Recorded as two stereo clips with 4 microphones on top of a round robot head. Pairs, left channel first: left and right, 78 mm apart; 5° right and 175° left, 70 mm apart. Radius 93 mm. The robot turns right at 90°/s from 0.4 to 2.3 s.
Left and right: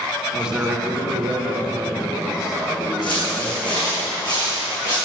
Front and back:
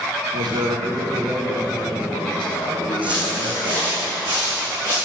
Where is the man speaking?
Straight behind, 1.7 m; by 4.0 s 5° right, 1.7 m.